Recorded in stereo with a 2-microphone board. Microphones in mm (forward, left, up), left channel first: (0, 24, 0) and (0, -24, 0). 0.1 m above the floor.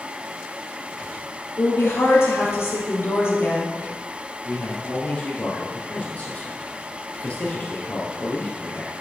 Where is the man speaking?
30° left (ahead or behind), 2.5 m.